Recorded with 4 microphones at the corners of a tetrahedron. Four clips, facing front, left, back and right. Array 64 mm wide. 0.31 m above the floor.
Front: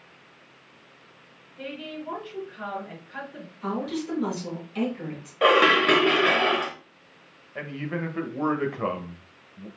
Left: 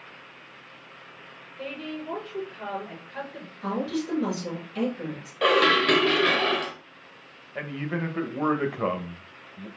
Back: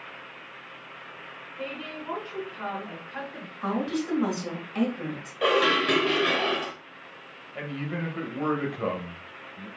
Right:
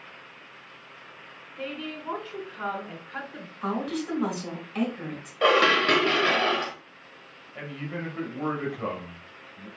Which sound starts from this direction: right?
A woman speaking, at 1.6 s.